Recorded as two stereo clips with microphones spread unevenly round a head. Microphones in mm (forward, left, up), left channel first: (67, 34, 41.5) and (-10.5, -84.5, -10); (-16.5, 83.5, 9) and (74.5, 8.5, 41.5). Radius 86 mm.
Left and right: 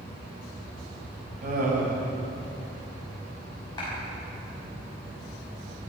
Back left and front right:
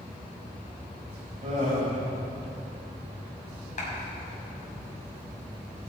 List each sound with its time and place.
1.4 s laughter: 95° right, 5.5 m
3.8 s a clap: 125° left, 6 m